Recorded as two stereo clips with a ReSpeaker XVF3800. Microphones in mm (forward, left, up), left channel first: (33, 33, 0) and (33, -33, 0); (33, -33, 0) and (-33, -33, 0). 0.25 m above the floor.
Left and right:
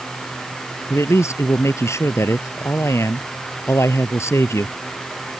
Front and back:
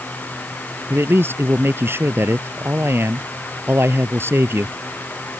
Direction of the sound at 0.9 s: 130° left.